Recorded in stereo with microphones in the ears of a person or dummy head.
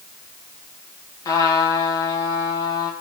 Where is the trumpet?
20° left (ahead or behind), 4 m.